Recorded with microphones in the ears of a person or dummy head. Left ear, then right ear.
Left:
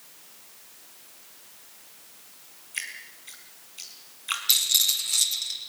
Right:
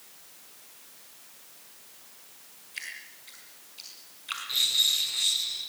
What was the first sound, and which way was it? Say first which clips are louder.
Dripping: left 4 dB; 20° left (ahead or behind).